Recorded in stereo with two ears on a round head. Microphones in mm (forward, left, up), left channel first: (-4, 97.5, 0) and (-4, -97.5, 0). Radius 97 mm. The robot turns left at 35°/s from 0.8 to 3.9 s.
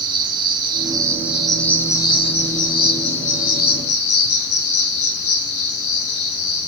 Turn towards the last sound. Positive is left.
turn(degrees=95)